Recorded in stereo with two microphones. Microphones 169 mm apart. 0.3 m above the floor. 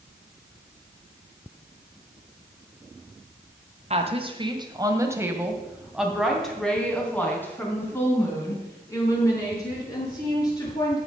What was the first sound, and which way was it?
A woman speaking, 40° right (ahead or behind).